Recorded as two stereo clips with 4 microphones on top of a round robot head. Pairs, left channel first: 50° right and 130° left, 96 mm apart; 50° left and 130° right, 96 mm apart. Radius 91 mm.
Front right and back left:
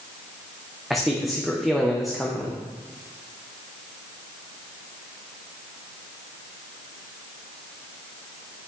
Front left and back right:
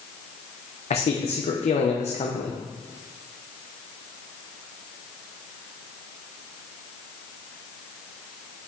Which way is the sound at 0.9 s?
40° left.